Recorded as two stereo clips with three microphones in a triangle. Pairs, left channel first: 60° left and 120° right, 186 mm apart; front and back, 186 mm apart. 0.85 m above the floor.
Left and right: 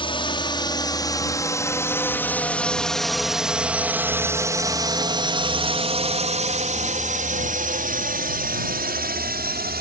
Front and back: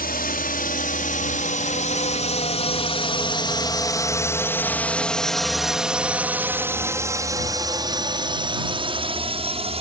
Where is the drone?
5° left; by 9.8 s 130° right.